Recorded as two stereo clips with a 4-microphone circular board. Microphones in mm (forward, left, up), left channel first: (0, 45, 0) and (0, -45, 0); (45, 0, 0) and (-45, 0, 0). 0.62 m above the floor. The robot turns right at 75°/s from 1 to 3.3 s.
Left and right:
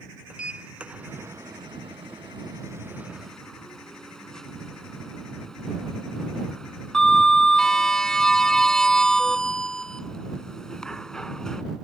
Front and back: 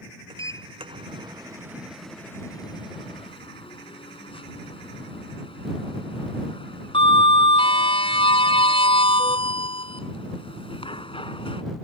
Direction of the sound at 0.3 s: 165° right.